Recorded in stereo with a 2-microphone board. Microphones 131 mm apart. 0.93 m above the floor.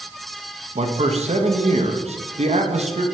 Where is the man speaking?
55° right (ahead or behind), 0.8 m.